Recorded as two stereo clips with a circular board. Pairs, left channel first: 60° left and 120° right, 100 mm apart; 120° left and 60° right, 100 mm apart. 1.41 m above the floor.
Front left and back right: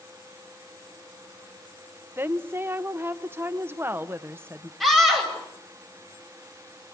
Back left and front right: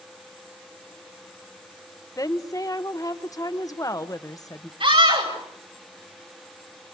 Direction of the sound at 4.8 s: 30° right.